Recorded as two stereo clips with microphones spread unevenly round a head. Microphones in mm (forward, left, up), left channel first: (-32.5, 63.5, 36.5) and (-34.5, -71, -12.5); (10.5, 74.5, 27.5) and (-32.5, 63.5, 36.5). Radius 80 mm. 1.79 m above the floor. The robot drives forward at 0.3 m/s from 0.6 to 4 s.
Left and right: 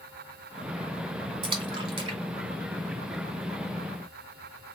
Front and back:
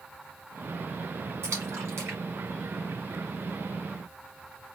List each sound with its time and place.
1.4 s a splash: 150° right, 1.7 m; by 3.4 s 160° right, 2 m